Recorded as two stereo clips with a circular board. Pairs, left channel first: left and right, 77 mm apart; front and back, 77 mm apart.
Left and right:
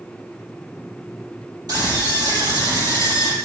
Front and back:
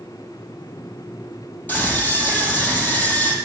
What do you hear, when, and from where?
1.7 s a scream: 65° right, 5 m